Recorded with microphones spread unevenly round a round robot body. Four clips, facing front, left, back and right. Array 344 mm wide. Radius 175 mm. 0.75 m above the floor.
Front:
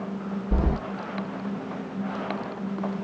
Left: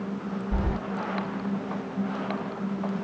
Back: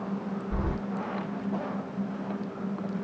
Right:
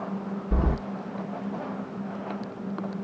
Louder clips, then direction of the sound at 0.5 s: Right 4 dB, front 7 dB; 40° right.